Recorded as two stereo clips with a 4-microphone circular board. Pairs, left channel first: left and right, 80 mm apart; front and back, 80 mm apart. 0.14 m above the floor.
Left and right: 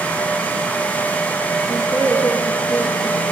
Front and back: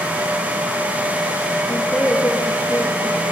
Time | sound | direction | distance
1.7 | a woman speaking | 65° left | 9 m